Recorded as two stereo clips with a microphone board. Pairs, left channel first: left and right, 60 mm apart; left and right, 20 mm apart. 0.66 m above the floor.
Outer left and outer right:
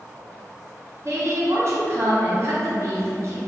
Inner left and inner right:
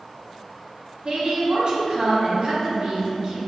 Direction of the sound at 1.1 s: 55° right (ahead or behind).